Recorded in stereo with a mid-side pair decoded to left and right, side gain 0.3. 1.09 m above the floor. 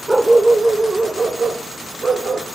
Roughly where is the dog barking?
Ahead.